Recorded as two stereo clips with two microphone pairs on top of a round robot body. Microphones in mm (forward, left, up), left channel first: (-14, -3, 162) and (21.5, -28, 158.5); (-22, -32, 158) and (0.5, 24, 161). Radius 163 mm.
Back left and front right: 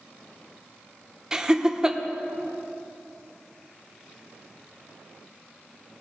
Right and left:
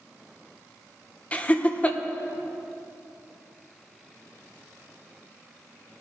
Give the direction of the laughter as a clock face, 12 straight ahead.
3 o'clock.